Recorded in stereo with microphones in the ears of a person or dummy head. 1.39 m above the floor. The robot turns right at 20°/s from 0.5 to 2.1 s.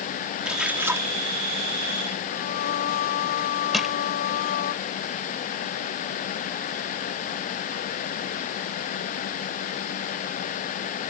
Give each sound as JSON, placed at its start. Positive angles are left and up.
{"t": 0.5, "sound": "a splash", "side_deg": 0}
{"t": 2.3, "sound": "singing", "side_deg": 55}
{"t": 3.7, "sound": "crushing", "side_deg": 5}